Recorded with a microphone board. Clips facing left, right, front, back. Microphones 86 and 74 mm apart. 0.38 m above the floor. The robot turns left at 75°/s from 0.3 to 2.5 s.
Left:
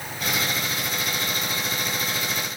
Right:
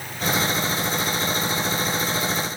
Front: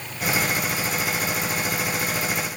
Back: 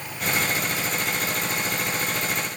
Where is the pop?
I don't hear a pop.